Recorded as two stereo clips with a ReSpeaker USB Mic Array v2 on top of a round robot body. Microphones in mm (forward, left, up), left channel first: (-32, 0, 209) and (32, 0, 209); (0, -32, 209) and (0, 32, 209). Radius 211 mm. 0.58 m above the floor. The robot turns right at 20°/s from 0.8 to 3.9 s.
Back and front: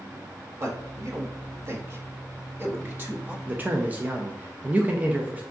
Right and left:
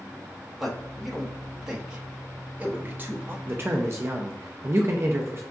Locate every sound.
0.6 s a man speaking: straight ahead, 1.4 m; by 3.4 s 50° left, 1.4 m
3.5 s a man speaking: 50° left, 0.7 m; by 5.4 s 60° left, 0.7 m